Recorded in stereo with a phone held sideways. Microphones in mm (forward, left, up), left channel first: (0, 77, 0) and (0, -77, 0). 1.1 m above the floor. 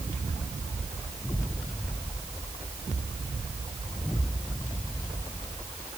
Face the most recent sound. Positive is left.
No sound to turn to.